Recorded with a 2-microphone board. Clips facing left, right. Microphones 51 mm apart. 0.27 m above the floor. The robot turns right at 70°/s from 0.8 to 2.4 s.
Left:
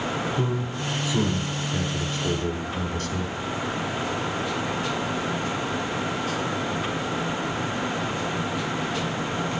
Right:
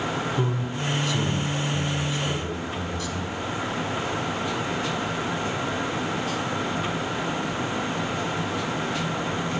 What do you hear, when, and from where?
0.4 s a man speaking: 5° right (ahead or behind), 1.6 m; by 3.3 s 55° left (ahead or behind), 1.6 m